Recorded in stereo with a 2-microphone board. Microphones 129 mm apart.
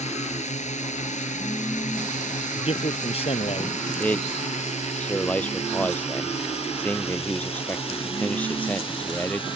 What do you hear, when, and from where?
0.0 s a drone: 60° left (ahead or behind); by 9.6 s 40° left (ahead or behind)
2.5 s a man speaking: 50° left (ahead or behind)
4.0 s a man speaking: 10° left (ahead or behind)